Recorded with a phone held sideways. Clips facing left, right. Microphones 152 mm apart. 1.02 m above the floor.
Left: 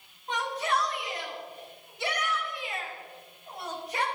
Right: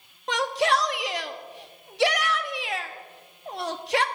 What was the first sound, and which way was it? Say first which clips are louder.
A shout: right 6 dB; 85° right.